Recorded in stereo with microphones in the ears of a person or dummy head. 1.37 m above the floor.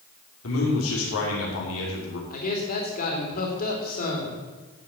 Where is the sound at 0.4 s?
85° left, 3 m.